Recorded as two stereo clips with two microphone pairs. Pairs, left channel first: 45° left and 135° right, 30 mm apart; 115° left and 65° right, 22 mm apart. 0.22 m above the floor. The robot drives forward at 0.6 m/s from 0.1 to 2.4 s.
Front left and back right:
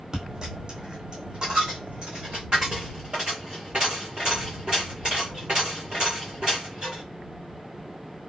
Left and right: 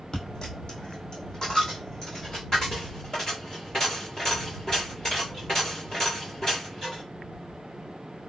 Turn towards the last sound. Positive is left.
turn(degrees=170)